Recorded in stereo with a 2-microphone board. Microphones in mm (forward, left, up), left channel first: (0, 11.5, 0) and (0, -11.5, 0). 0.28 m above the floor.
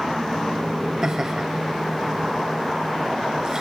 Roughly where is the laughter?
Right.